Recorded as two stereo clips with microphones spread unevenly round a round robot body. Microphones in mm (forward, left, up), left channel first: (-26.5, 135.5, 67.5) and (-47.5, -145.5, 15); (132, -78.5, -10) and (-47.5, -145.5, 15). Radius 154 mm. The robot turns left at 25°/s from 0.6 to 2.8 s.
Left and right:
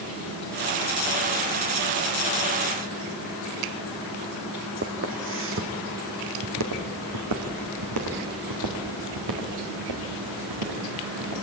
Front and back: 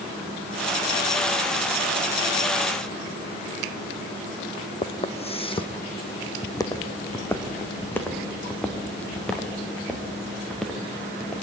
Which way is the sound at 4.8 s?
35° right.